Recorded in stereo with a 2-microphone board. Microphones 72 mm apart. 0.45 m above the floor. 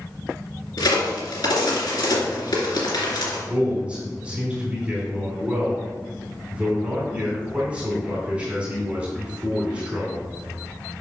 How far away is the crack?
About 2.5 m.